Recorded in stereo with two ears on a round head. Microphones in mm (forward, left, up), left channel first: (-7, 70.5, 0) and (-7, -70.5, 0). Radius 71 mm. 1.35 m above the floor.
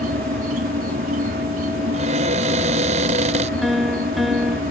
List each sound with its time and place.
0.0 s an insect: 60° right (ahead or behind)
1.9 s a cupboard door: 45° right (ahead or behind)
3.6 s a piano: centre (ahead or behind)